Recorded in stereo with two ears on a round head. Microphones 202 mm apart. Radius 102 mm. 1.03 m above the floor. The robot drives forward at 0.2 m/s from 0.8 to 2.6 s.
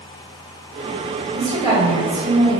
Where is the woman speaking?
20° right (ahead or behind), 1.8 m.